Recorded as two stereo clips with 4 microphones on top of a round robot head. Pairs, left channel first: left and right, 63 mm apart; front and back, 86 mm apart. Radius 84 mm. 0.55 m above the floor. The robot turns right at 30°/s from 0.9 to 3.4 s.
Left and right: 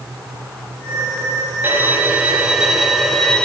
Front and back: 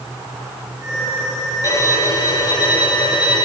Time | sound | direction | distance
1.6 | a violin | 40° right | 2.5 m